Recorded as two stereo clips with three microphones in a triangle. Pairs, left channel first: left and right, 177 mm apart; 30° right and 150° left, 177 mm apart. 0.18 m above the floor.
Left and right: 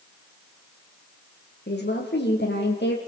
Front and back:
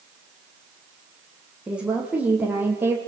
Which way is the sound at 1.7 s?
65° left.